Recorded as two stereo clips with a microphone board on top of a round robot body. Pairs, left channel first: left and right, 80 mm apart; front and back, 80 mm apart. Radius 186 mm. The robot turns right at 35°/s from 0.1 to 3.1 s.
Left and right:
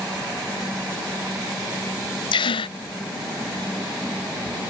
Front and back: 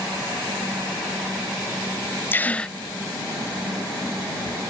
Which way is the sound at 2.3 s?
65° left.